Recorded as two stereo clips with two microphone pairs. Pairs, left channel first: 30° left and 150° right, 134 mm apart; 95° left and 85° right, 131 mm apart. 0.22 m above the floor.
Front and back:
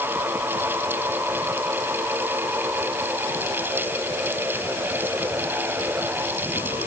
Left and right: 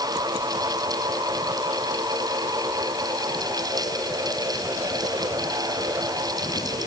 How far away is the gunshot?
I don't hear a gunshot.